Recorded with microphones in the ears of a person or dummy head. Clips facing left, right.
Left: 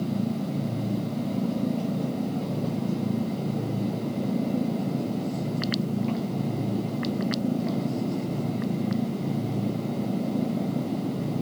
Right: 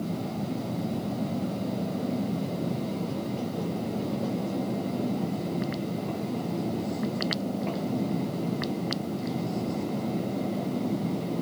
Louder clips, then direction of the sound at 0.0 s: Left 4 dB; 45° left (ahead or behind).